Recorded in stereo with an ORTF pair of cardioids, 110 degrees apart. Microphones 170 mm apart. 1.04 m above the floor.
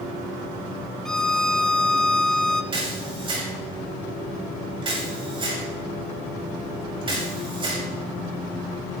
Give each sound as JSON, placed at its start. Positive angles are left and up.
{"t": 1.1, "sound": "a violin", "azimuth_deg": 5, "distance_m": 0.7}
{"t": 2.7, "sound": "a camera shutter", "azimuth_deg": -30, "distance_m": 7.5}